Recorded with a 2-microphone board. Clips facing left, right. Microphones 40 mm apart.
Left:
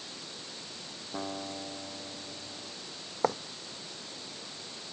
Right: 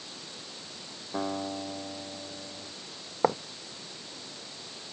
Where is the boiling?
I don't hear boiling.